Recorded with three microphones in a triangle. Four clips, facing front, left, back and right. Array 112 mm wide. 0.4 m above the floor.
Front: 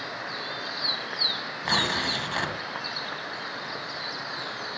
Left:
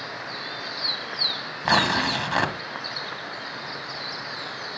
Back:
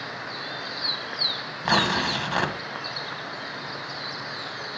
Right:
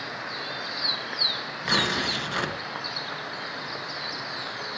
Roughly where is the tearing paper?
Behind left.